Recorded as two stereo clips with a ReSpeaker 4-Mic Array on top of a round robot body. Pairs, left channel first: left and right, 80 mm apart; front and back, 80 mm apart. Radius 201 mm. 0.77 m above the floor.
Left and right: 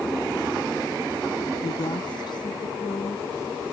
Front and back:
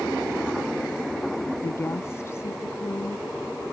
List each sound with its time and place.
1.6 s a woman speaking: 60° left